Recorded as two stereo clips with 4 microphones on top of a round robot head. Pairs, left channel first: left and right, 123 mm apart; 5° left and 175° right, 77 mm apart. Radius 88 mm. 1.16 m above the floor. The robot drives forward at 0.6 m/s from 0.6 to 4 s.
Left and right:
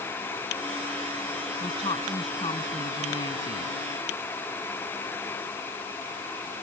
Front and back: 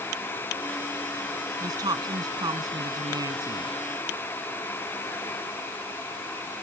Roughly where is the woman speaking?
Behind left.